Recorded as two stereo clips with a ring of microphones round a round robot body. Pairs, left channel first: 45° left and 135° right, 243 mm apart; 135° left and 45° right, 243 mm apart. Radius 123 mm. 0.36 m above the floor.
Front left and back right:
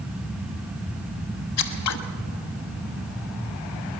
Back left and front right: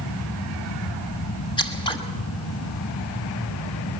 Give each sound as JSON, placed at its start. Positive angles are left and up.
{"t": 1.6, "sound": "scissors", "azimuth_deg": 65, "distance_m": 1.1}